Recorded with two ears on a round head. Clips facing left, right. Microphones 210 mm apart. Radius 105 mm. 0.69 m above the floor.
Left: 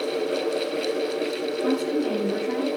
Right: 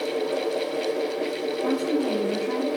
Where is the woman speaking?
10° left (ahead or behind), 5 m; by 2.8 s 10° right (ahead or behind), 3.5 m.